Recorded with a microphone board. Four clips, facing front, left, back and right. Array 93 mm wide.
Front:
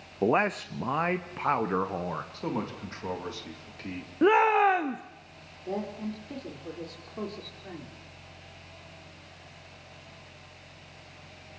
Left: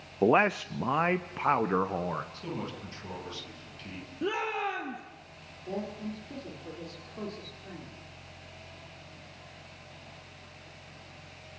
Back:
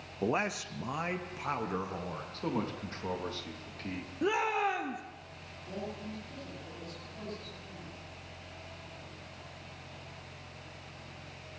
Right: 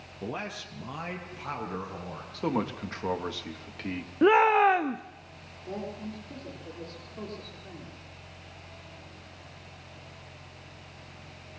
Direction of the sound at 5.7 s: 5° left.